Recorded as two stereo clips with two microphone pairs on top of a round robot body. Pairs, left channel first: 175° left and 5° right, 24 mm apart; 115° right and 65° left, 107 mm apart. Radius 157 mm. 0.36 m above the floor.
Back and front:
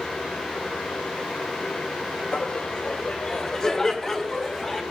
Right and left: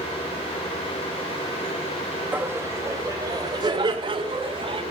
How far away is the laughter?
About 3 m.